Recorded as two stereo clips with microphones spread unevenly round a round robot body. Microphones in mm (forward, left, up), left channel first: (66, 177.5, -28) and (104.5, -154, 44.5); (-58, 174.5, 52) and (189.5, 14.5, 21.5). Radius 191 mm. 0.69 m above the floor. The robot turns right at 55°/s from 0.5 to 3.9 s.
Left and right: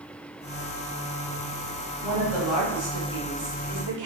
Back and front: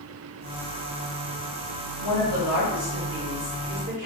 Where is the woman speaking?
165° left, 1.2 m; by 4.1 s 90° right, 1.2 m.